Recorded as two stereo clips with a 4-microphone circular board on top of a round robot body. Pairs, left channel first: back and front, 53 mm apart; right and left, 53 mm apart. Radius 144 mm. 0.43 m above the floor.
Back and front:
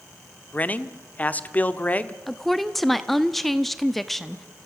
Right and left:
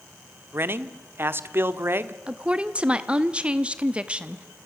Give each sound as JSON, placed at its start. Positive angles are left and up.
{"t": 0.5, "sound": "a man speaking", "azimuth_deg": 125, "distance_m": 1.3}
{"t": 2.3, "sound": "a woman speaking", "azimuth_deg": 100, "distance_m": 1.2}